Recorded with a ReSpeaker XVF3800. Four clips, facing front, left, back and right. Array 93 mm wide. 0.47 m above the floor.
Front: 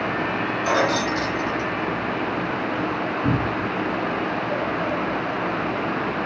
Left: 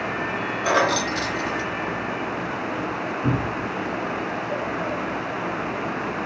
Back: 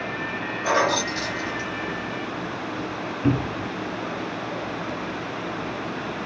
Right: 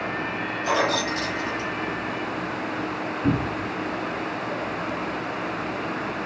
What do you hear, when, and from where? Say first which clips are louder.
0.6 s keys jangling: left 3 dB, even; 100° left, 3 m
3.2 s a cupboard door: right 2 dB, back 2 dB; 175° right, 1.1 m